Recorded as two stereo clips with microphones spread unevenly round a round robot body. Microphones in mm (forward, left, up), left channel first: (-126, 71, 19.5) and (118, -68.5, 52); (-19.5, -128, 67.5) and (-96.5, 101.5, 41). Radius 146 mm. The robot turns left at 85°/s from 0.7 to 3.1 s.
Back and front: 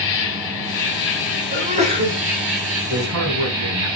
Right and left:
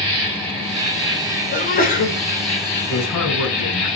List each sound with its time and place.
0.0 s an insect: 170° left, 4 m; by 4.0 s 35° right, 4 m
1.5 s a sneeze: 55° right, 1.3 m; by 2.2 s 115° right, 1.3 m
2.9 s a man speaking: 50° right, 3.5 m; by 3.9 s 70° right, 3.5 m